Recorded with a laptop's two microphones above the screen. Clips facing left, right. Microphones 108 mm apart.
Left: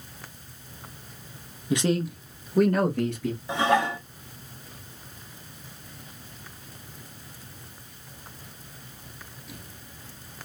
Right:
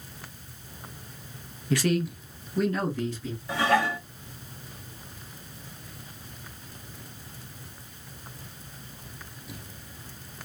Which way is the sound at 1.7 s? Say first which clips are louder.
Left 1 dB; 15° left (ahead or behind).